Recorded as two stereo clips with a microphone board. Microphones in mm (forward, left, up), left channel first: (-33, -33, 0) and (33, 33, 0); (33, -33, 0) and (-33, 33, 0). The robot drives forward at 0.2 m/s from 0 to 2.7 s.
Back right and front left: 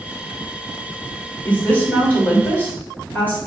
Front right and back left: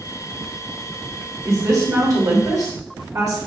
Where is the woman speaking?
160° left, 1.6 m; by 3.4 s 165° left, 1.8 m.